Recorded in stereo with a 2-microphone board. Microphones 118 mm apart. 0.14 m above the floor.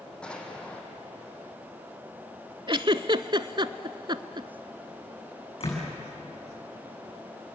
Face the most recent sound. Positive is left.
turn(degrees=50)  # may be behind; listen again after turning